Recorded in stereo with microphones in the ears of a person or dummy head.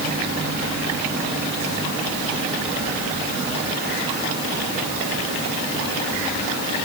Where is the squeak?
I don't hear a squeak.